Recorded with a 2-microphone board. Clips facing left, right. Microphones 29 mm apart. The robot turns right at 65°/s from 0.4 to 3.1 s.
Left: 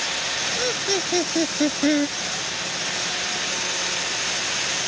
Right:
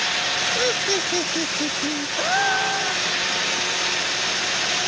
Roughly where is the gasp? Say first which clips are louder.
Right 8 dB; behind right.